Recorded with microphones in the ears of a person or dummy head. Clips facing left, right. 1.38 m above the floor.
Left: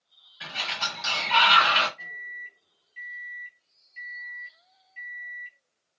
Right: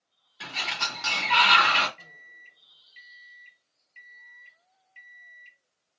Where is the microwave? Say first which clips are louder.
Left 6 dB; 60° right (ahead or behind), 1.3 m.